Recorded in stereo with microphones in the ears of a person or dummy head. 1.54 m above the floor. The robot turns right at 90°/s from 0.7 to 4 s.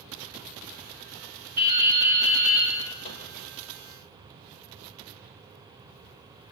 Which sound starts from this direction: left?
A microwave, at 3.0 s.